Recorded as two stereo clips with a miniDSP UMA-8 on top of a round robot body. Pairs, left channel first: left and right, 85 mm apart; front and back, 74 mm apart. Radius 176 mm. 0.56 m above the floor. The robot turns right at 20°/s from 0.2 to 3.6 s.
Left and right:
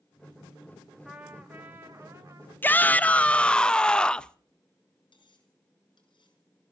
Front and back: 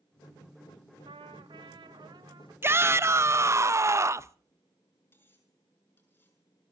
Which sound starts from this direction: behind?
A trumpet, at 1.1 s.